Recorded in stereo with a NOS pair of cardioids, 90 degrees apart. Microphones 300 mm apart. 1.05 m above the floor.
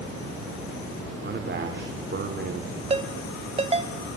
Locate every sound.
1.2 s a man speaking: 35° right, 3.5 m
2.9 s a ringtone: 20° right, 2.5 m